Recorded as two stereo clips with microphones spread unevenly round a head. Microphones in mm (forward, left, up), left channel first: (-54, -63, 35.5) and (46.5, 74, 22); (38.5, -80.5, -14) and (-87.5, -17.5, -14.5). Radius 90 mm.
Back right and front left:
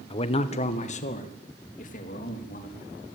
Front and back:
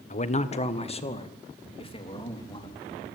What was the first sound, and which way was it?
A man speaking, 65° right.